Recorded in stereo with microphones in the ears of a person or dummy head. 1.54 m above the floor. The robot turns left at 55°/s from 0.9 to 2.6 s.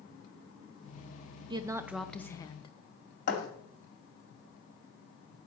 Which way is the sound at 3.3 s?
60° left (ahead or behind).